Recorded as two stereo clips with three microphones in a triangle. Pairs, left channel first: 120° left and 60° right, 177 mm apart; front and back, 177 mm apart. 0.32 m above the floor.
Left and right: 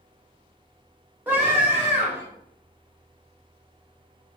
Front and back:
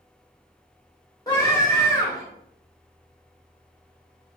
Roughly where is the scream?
Ahead.